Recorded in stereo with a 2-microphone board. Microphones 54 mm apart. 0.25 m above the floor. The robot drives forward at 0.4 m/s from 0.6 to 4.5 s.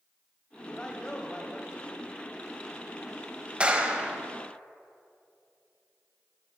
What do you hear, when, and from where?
0.7 s a man speaking: 15° left (ahead or behind), 1.0 m
3.6 s a clap: 20° right (ahead or behind), 0.8 m